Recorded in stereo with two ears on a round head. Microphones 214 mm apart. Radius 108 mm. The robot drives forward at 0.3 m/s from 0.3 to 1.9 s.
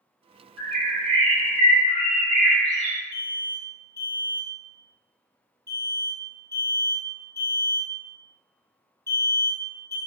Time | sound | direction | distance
0.6 | a bird | 80° right | 1.4 m
3.1 | an alarm | 15° right (ahead or behind) | 0.6 m